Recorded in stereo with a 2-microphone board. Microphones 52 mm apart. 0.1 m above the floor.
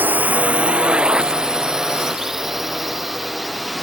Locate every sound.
0.0 s a drone: 35° right (ahead or behind); by 3.8 s centre (ahead or behind)